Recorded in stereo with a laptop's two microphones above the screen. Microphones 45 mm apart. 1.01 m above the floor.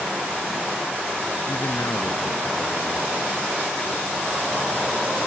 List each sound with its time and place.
1.5 s a man speaking: 70° left (ahead or behind)